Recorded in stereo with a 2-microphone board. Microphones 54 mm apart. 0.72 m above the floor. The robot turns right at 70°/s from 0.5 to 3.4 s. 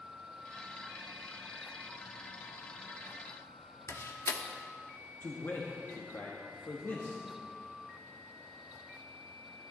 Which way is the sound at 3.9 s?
60° left (ahead or behind).